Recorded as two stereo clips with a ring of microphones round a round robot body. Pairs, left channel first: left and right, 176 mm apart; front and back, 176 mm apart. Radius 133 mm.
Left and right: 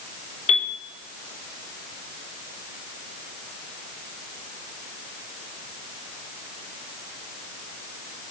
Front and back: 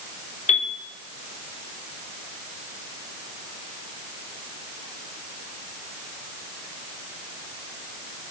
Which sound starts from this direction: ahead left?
A piano, at 0.5 s.